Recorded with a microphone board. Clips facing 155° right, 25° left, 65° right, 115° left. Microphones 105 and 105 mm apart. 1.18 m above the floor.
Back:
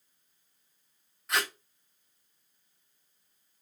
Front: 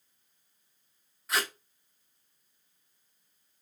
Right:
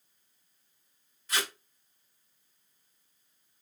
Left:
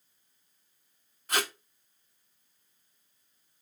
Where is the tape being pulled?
110° left, 1.0 m.